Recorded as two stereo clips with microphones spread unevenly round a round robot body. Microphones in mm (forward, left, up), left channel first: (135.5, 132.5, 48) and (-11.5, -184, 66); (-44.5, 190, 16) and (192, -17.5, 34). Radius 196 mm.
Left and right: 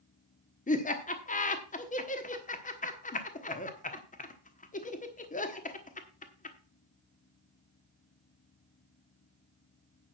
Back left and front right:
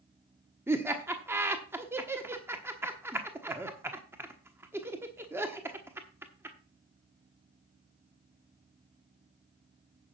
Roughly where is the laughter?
Ahead left.